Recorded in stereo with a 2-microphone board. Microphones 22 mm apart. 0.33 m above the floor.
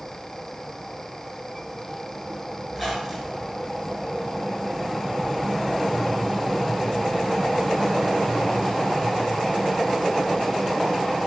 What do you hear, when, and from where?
2.7 s a squeak: 10° right (ahead or behind), 2 m